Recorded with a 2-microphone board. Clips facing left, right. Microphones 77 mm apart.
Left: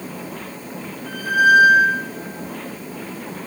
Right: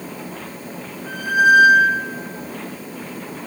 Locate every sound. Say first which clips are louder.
1.1 s a squeak: even; 15° right (ahead or behind), 4.5 m